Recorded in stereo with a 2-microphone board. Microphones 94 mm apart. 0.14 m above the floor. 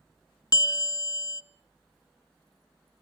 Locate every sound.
0.5 s a bell: 45° left (ahead or behind), 0.5 m